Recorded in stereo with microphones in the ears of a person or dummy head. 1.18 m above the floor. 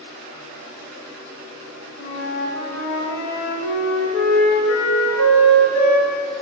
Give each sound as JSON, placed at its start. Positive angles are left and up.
{"t": 2.0, "sound": "a flute", "side_deg": 75, "distance_m": 1.4}